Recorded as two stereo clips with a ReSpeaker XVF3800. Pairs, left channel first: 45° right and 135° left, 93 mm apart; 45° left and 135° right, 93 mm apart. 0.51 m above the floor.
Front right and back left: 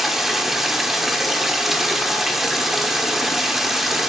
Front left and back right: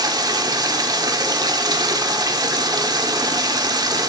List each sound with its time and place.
0.0 s running water: 140° right, 1.2 m